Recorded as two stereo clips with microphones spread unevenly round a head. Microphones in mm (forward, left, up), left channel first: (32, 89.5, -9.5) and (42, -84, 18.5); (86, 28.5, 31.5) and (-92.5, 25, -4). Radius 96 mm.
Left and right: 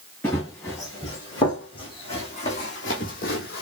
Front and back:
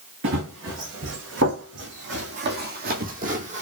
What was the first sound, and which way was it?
Running footsteps, 175° left.